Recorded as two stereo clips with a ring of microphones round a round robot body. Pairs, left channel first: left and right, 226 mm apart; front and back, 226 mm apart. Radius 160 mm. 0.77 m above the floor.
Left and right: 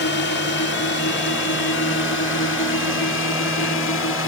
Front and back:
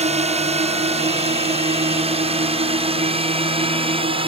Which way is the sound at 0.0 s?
125° left.